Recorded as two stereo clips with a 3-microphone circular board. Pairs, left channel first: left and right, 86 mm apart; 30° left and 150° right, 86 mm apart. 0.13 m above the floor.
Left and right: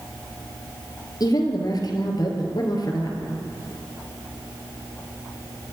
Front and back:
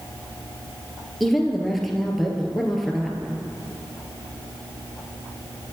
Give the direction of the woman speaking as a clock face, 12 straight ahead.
8 o'clock.